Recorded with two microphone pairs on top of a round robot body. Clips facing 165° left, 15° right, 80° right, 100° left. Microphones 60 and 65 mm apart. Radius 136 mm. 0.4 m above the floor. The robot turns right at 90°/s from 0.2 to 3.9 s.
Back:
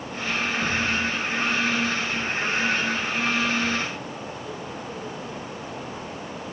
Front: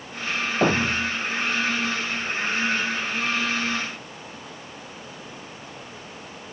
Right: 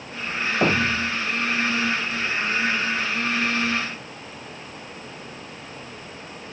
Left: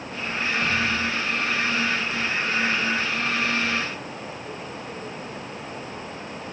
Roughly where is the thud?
Ahead right.